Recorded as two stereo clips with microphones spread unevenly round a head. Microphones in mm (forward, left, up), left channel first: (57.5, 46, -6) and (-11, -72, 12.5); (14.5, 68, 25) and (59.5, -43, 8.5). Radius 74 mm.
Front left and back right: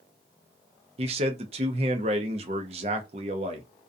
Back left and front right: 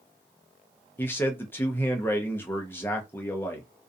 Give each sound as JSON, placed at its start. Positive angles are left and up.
{"t": 1.0, "sound": "a man speaking", "azimuth_deg": -170, "distance_m": 0.5}